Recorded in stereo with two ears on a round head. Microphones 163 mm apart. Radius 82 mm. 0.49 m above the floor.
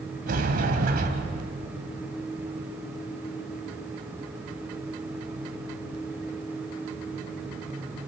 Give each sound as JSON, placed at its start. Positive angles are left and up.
{"t": 0.3, "sound": "a sliding door", "side_deg": -55, "distance_m": 2.0}